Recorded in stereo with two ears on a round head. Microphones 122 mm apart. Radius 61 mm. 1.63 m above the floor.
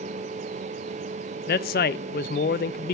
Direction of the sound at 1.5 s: 75° left (ahead or behind).